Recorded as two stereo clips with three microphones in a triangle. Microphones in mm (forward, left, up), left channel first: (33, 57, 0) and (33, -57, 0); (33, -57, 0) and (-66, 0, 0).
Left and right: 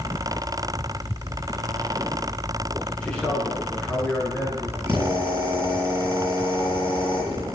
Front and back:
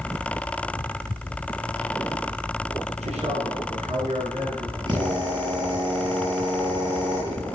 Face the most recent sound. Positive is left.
turn(degrees=-160)